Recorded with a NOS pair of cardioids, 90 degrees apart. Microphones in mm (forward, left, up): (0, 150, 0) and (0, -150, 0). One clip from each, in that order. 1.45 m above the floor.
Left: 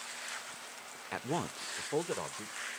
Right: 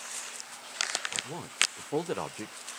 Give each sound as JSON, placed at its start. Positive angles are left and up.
{"t": 1.1, "sound": "a man speaking", "azimuth_deg": 40, "distance_m": 0.6}